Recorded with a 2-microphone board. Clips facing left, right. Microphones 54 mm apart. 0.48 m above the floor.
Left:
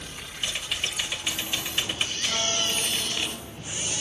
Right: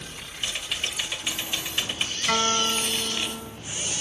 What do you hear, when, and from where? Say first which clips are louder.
0.4 s typing on a keyboard: even; centre (ahead or behind), 1.6 m
2.3 s a guitar: right 8 dB; 70° right (ahead or behind), 1.0 m